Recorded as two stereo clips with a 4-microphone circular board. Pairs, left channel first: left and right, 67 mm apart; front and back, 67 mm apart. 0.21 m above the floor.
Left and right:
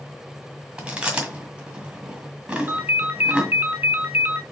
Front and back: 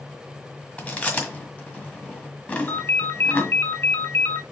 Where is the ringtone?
40° right, 0.8 m.